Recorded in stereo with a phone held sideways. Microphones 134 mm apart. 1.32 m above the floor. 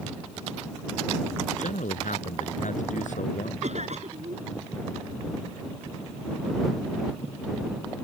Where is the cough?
65° right (ahead or behind).